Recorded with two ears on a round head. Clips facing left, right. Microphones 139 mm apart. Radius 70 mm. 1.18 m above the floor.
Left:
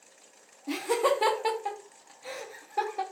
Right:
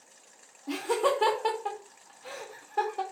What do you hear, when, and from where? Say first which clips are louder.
0.7 s laughter: left 1 dB; 10° left (ahead or behind), 0.8 m